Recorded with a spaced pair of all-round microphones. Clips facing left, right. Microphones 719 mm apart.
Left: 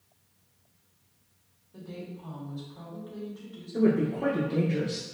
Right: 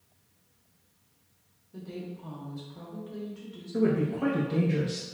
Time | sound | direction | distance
1.7 | a woman speaking | 55° right (ahead or behind) | 1.5 m
3.7 | a woman speaking | 40° right (ahead or behind) | 0.8 m